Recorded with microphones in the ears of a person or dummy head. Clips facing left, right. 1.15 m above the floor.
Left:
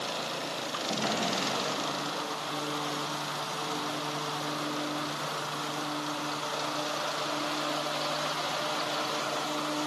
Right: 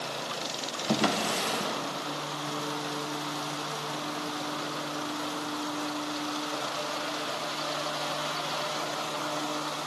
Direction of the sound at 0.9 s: 60° right (ahead or behind).